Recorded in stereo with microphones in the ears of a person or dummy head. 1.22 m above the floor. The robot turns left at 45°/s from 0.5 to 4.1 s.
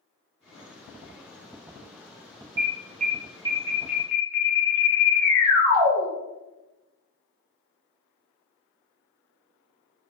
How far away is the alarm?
About 0.7 m.